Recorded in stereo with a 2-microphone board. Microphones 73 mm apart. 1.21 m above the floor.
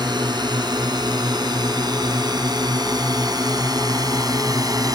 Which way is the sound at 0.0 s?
75° right (ahead or behind).